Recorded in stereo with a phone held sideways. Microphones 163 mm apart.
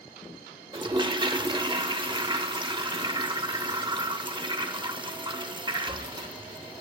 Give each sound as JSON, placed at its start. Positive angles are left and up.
{"t": 0.7, "sound": "a toilet flushing", "side_deg": -30, "distance_m": 0.7}